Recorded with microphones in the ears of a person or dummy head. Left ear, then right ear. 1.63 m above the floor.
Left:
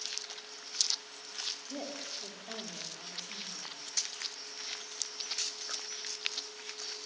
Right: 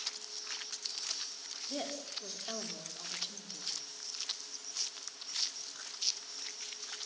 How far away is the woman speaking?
About 4 m.